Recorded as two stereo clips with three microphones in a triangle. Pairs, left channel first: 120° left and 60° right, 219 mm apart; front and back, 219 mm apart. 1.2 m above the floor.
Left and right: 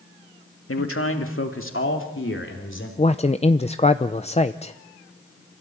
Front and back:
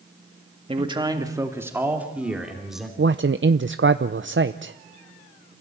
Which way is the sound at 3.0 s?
Straight behind.